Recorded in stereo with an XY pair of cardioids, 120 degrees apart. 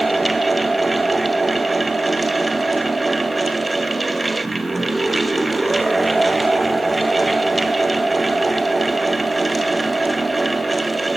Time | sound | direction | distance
0.0 | a fan | 15° right | 1.2 m